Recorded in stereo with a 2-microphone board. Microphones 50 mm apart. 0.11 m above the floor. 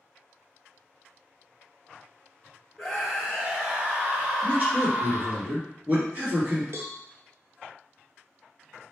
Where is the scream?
5° right (ahead or behind), 1.5 m; by 5.4 s 40° right (ahead or behind), 2 m.